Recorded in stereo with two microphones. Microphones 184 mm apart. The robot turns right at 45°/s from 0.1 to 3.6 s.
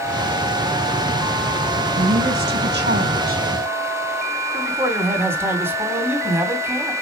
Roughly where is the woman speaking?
Behind right.